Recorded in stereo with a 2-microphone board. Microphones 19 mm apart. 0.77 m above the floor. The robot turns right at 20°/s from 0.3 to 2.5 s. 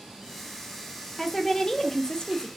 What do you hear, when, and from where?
1.2 s a woman speaking: 25° left (ahead or behind), 0.7 m; by 2.5 s 45° left (ahead or behind), 0.7 m